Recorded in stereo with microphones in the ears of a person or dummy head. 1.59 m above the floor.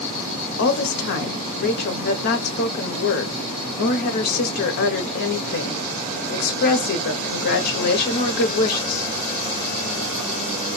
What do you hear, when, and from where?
0.6 s a woman speaking: 55° left (ahead or behind), 0.9 m